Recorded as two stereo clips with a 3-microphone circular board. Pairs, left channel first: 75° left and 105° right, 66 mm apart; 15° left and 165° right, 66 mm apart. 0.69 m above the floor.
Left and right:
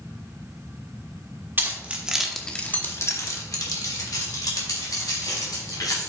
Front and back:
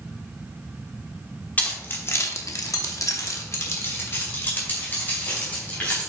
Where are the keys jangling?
50° right, 1.3 m; by 6.1 s 80° left, 3.5 m.